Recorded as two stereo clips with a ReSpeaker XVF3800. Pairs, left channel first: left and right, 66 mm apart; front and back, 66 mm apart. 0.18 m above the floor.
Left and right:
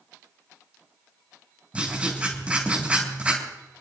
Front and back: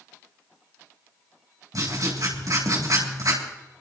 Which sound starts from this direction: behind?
Writing, at 1.7 s.